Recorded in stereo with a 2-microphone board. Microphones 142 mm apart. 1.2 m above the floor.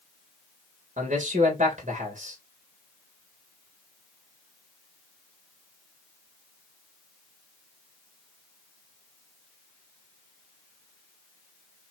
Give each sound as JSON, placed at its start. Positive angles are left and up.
{"t": 1.0, "sound": "a man speaking", "side_deg": -55, "distance_m": 1.6}